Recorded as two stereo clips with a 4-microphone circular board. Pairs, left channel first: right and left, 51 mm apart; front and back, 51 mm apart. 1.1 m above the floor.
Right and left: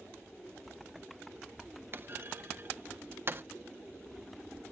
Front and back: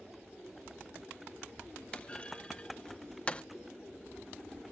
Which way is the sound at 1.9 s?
65° left.